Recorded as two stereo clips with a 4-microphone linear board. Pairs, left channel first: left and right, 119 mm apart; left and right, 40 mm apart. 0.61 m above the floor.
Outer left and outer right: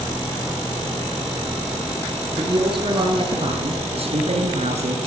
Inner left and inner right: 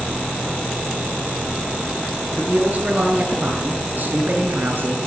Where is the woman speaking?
40° right (ahead or behind), 9 m; by 5.0 s 65° right (ahead or behind), 7 m.